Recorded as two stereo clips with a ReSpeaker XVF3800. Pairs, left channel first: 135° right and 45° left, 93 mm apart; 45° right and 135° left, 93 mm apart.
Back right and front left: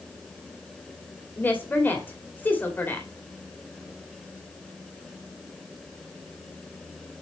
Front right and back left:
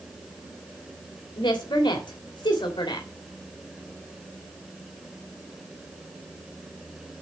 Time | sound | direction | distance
1.4 | a woman speaking | 70° right | 2.5 m